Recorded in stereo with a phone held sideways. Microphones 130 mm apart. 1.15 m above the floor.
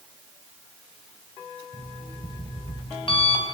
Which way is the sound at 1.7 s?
45° left (ahead or behind).